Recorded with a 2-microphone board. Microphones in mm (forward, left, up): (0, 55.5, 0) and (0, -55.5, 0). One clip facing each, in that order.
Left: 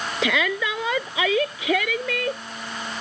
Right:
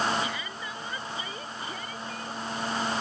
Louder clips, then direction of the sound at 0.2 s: Left 11 dB; 80° left.